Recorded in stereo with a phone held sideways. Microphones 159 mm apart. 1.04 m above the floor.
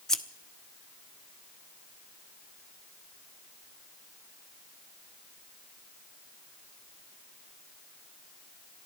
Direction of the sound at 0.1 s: 5° left (ahead or behind).